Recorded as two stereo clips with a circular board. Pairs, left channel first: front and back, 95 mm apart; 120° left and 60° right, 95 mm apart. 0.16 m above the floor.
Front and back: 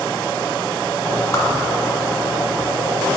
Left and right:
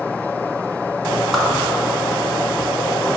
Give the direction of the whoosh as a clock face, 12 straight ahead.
11 o'clock.